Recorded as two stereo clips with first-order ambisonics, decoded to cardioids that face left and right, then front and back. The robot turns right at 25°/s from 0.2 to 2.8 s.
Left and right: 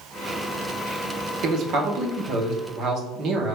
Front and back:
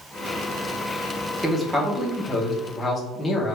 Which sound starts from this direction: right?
A man speaking, at 1.4 s.